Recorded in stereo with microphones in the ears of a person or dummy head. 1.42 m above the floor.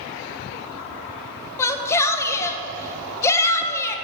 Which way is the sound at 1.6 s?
20° left (ahead or behind).